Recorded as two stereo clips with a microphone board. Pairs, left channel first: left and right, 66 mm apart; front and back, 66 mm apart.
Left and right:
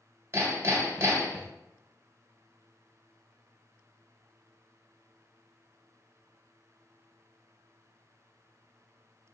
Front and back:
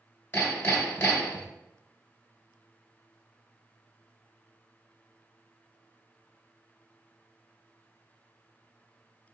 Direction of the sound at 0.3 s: 45° right.